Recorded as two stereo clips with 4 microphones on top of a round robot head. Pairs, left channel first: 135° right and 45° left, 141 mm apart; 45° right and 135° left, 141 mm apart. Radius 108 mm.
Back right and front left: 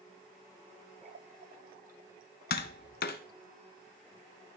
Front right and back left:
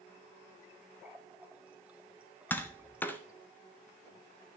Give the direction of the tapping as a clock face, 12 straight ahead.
4 o'clock.